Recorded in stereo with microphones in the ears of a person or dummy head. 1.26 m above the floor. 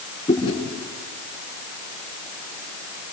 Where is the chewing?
30° left (ahead or behind), 7 m.